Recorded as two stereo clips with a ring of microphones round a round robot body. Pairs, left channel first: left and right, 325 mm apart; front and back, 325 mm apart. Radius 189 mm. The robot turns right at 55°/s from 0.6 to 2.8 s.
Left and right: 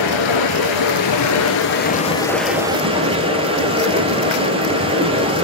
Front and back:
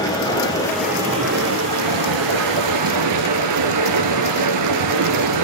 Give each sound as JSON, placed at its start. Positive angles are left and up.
{"t": 0.0, "sound": "running water", "azimuth_deg": 80, "distance_m": 1.2}